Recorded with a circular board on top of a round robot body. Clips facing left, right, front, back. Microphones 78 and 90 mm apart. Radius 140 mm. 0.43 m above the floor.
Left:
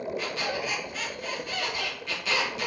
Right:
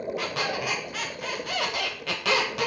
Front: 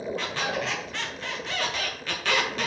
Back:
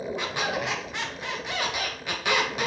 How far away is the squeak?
About 1.7 m.